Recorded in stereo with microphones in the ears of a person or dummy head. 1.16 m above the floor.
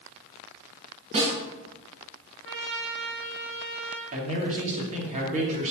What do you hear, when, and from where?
1.1 s a snare drum: 40° right (ahead or behind), 5 m
2.5 s a trumpet: 50° right (ahead or behind), 1.6 m
4.1 s a man speaking: 40° right (ahead or behind), 3 m